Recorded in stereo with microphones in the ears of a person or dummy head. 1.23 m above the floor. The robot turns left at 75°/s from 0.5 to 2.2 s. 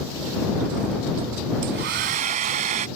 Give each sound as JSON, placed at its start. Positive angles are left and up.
{"t": 1.6, "sound": "a hair dryer", "azimuth_deg": -85}